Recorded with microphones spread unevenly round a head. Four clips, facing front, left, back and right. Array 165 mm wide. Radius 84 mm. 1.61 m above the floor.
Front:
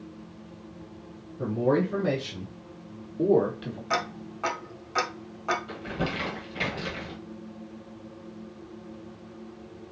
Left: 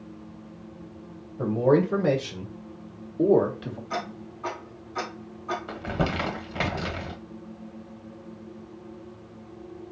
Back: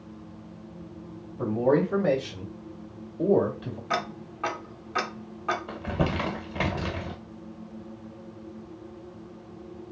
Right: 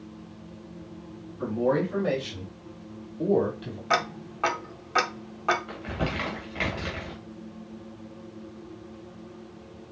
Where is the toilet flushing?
I don't hear a toilet flushing.